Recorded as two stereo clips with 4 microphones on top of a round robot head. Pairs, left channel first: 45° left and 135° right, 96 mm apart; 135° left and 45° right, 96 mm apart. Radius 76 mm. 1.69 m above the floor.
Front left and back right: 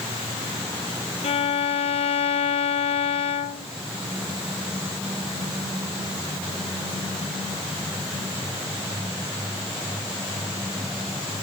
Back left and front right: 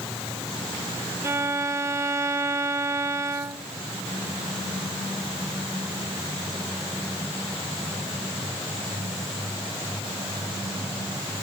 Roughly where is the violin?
Ahead.